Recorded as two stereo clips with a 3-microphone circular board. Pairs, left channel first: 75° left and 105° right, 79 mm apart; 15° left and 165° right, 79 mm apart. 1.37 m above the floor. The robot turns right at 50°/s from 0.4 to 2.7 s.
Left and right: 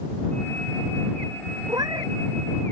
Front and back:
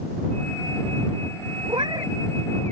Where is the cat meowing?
150° right; by 2.1 s 130° right.